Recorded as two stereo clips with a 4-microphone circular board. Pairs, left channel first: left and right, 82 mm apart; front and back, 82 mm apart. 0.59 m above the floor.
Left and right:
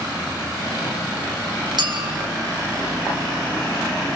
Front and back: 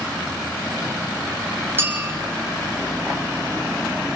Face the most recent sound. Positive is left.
turn(degrees=-120)